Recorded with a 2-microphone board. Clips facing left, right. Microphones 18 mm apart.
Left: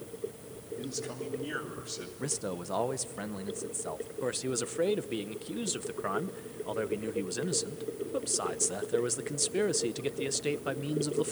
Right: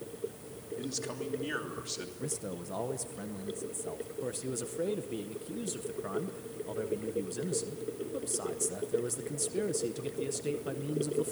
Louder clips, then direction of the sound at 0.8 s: Right 1 dB; 20° right (ahead or behind).